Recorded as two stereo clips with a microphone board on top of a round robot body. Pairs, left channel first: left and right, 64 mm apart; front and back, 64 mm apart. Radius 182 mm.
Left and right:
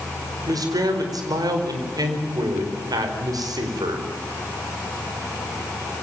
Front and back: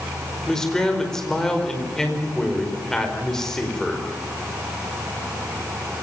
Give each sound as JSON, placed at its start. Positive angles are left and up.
{"t": 0.5, "sound": "a man speaking", "azimuth_deg": -80, "distance_m": 4.5}